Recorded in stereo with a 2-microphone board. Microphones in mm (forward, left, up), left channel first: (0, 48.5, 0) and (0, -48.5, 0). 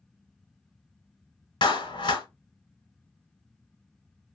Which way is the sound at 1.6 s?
50° left (ahead or behind).